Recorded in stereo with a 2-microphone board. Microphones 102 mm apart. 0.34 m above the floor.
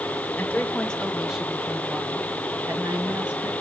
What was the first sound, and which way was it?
A woman speaking, 20° left (ahead or behind).